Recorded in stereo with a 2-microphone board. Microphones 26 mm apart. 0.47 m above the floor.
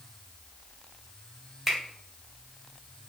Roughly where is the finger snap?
Centre.